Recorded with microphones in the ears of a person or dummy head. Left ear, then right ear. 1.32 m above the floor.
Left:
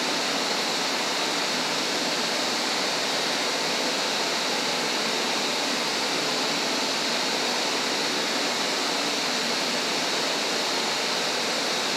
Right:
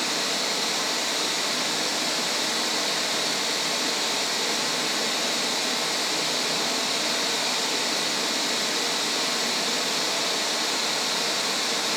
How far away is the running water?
About 1.7 m.